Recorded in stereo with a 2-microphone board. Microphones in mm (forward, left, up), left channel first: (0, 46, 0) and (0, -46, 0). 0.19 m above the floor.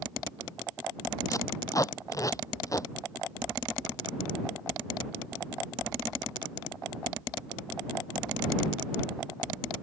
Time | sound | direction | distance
1.3 | tape being pulled | 40° left (ahead or behind) | ?